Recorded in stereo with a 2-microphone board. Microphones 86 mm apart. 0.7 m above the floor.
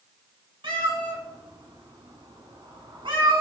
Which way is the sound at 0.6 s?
85° right.